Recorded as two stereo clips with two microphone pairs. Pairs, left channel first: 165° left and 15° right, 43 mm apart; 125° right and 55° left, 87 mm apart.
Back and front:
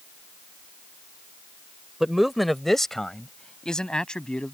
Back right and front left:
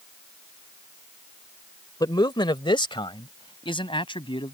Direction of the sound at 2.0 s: 95° right.